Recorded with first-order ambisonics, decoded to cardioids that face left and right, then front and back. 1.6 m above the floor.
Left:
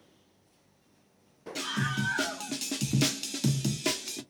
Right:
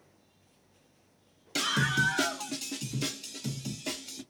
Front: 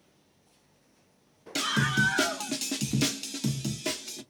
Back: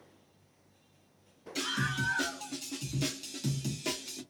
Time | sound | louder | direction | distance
1.6 | a scream | right 5 dB, front 7 dB | 35° right | 0.8 m